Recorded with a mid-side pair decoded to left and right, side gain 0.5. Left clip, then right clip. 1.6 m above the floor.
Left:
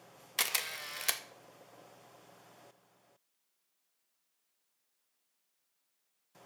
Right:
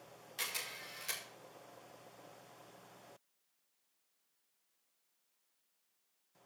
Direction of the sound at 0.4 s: 70° left.